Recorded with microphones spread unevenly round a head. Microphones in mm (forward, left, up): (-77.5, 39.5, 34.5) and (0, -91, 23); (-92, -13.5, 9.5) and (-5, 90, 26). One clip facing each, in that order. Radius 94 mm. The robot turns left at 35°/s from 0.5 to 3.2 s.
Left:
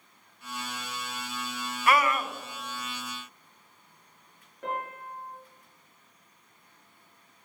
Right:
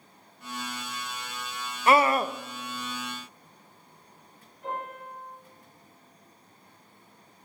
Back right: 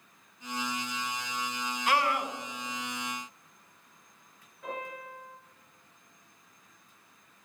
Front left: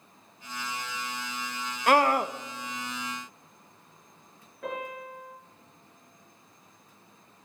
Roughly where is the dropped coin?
I don't hear a dropped coin.